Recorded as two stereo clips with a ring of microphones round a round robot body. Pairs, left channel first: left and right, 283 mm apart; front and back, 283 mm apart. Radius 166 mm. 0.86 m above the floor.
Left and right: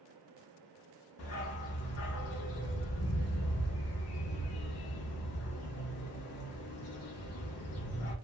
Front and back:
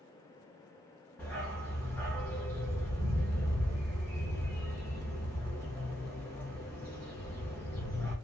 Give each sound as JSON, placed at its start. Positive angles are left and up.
{"t": 1.2, "sound": "a dog barking", "azimuth_deg": 85, "distance_m": 0.5}